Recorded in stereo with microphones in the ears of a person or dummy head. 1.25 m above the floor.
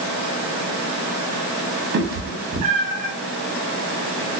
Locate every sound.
1.9 s a cat meowing: 60° right (ahead or behind), 0.9 m; by 3.1 s 25° right (ahead or behind), 0.9 m